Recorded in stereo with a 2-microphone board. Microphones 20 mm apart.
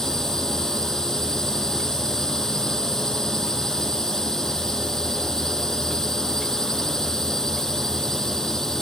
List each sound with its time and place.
0.0 s a drone: 30° left (ahead or behind)